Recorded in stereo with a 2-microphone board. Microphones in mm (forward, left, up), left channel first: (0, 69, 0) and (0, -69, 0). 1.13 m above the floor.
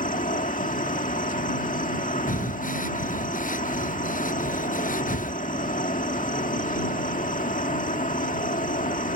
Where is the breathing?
75° left (ahead or behind).